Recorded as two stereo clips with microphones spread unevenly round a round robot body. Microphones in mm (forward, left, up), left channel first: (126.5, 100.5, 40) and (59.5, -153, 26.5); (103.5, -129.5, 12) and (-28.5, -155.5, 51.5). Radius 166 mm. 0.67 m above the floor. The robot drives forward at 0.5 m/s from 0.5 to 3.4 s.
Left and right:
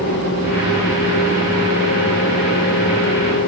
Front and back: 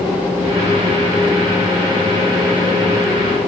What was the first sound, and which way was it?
Only background noise.